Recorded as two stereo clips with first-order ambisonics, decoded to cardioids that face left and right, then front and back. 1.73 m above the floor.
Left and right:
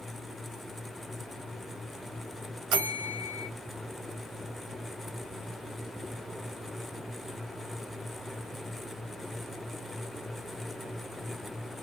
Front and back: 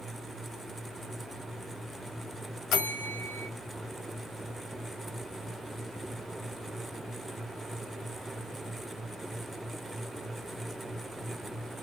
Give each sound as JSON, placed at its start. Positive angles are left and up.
{"t": 2.7, "sound": "a bell", "azimuth_deg": -50, "distance_m": 0.8}